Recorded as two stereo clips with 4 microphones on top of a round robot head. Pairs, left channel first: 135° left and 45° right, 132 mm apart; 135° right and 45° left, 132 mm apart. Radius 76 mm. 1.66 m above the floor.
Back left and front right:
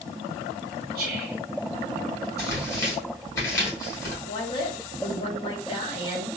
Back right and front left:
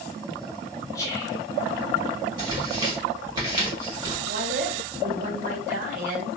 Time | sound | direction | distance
0.9 | whispering | 65° right | 1.2 m
2.4 | tearing paper | 85° left | 1.5 m
4.3 | a woman speaking | 80° left | 1.2 m